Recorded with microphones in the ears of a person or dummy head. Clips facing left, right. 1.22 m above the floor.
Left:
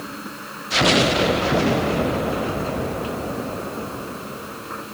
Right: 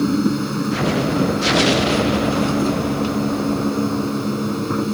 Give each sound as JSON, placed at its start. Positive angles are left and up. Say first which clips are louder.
{"t": 0.0, "sound": "a machine running", "louder": "right 17 dB", "side_deg": -50}